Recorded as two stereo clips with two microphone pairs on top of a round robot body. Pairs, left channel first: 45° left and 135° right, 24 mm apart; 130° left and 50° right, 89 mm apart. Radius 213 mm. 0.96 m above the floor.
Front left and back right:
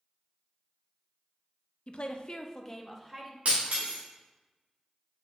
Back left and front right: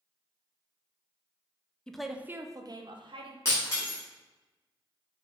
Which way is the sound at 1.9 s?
55° left.